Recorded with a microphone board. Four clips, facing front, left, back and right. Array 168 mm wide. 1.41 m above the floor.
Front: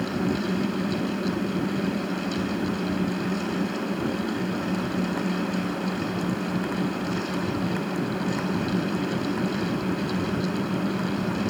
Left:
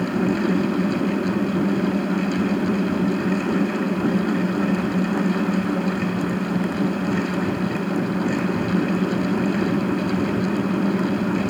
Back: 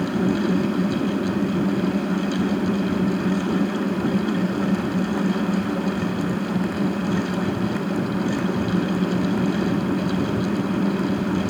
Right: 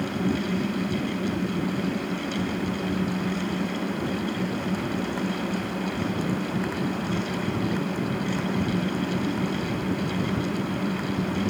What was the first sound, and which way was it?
Only background noise.